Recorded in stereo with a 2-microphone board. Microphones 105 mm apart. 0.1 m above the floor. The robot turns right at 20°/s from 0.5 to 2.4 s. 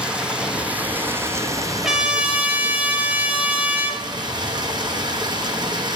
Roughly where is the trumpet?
Centre.